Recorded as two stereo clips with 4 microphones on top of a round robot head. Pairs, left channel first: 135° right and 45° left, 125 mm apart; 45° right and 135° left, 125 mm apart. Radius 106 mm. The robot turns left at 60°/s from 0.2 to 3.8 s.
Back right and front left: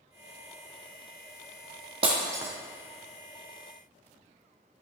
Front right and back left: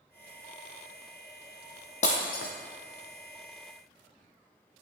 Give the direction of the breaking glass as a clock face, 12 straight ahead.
12 o'clock.